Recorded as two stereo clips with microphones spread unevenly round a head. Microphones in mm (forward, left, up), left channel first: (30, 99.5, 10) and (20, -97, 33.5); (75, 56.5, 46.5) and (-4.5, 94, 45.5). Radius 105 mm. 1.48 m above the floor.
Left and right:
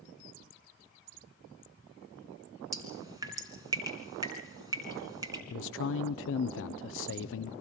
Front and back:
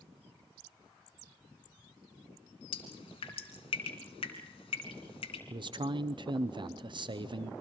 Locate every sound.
2.7 s dripping: 25° right, 2.5 m
5.5 s a man speaking: 115° left, 0.6 m